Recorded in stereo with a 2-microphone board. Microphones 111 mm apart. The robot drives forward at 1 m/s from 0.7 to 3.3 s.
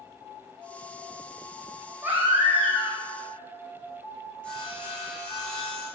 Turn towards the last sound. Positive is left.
turn(degrees=10)  # may be behind; listen again after turning